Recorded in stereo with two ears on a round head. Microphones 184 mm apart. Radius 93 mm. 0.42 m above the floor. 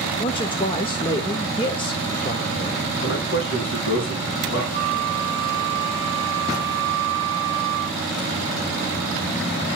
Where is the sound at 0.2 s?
25° left (ahead or behind), 1.0 m.